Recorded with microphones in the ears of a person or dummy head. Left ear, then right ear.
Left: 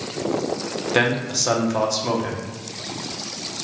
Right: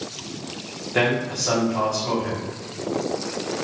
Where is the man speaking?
85° left, 0.8 m.